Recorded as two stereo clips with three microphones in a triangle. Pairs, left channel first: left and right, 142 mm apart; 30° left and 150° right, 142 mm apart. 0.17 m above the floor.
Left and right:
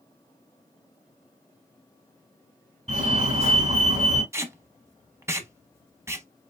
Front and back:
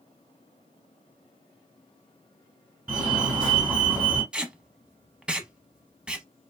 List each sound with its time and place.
2.9 s a fire alarm: 70° right, 3.5 m
4.3 s tape being pulled: 80° right, 0.7 m